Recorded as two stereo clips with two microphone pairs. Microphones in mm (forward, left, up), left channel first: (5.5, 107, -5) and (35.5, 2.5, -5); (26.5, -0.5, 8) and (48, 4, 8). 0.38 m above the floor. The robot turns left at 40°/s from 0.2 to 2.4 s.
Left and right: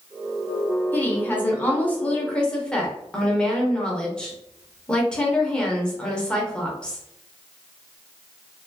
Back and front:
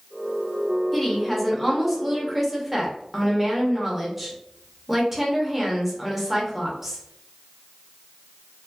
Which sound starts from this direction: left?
A woman speaking, at 0.9 s.